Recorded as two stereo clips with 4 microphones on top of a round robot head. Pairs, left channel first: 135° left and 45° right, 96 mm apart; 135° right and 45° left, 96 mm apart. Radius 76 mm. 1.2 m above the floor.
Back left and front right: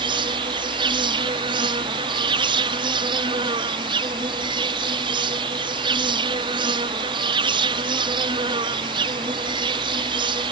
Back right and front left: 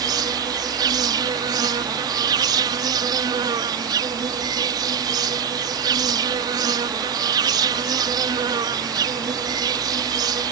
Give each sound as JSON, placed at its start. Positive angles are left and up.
{"t": 0.0, "sound": "an insect", "azimuth_deg": -5}